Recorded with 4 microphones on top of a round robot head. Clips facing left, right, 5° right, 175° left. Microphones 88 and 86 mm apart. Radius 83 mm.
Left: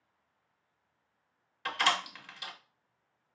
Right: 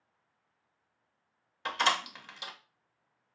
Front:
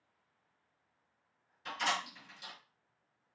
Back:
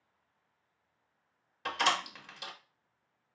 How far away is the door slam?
About 0.9 m.